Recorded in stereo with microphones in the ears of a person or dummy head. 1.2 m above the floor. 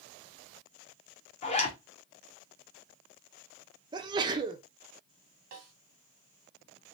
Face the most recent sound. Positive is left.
turn(degrees=-55)  # may be behind; listen again after turning